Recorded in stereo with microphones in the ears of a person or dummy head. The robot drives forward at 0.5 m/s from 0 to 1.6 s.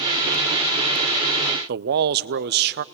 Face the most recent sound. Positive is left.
turn(degrees=-55)  # may be behind; listen again after turning